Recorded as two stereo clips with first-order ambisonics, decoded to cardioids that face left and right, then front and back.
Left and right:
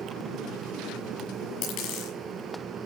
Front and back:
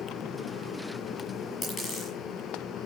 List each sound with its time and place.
1.6 s a dropped coin: 70° left, 6.5 m